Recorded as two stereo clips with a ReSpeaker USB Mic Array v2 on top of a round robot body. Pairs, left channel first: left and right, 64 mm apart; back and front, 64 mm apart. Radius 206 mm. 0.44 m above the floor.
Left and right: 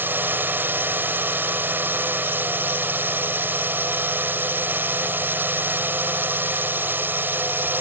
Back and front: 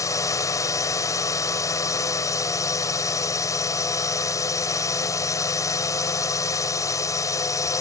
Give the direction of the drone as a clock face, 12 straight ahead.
5 o'clock.